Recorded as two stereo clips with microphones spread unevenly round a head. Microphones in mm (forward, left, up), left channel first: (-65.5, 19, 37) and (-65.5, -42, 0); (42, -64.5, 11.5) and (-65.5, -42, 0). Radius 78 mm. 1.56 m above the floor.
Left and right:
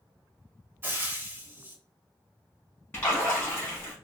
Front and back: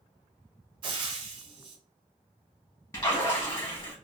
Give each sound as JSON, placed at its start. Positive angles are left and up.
{"t": 0.8, "sound": "frying", "azimuth_deg": -170, "distance_m": 0.9}
{"t": 2.9, "sound": "a splash", "azimuth_deg": 50, "distance_m": 0.9}